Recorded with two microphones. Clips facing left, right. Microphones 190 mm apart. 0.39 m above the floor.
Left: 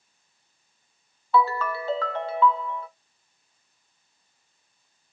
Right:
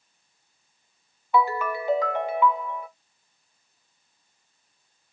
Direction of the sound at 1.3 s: 15° right (ahead or behind).